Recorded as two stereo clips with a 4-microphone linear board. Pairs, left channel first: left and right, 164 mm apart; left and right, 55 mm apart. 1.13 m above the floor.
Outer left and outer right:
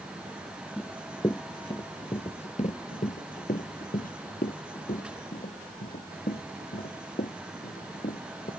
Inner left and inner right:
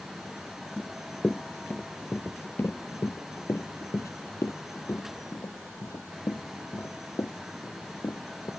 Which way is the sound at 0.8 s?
15° left (ahead or behind).